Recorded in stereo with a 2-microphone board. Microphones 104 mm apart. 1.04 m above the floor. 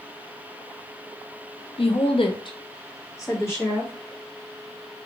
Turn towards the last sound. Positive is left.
turn(degrees=20)  # may be behind; listen again after turning